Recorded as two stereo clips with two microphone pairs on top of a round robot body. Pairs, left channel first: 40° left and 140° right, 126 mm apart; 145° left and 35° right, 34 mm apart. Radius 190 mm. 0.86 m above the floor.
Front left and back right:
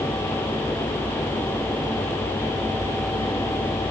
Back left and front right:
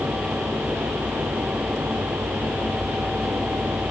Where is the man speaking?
No man speaking in this recording.